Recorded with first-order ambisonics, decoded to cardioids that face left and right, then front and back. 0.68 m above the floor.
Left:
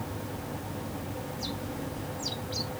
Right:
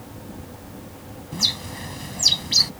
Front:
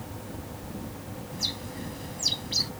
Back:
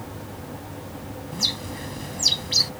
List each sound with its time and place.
1.3 s a bird: 115° right